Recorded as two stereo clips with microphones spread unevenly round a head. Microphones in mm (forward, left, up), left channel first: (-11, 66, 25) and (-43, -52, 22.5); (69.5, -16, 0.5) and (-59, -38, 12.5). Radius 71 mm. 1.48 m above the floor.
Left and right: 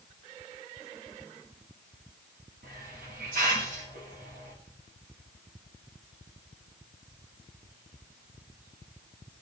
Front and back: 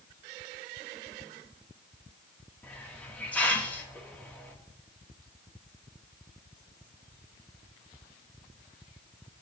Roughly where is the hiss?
Right.